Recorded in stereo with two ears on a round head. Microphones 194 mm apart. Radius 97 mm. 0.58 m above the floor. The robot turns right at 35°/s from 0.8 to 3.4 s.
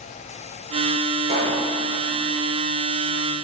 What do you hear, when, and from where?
1.2 s a pop: 50° right (ahead or behind), 1.7 m; by 1.6 s 40° right (ahead or behind), 1.7 m